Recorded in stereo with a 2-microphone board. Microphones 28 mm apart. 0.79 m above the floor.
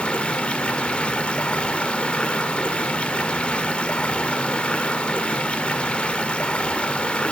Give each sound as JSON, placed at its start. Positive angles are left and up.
{"t": 0.0, "sound": "running water", "side_deg": 45, "distance_m": 1.4}